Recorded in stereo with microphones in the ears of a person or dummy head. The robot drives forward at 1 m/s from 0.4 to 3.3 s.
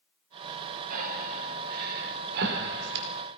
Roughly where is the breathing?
Right.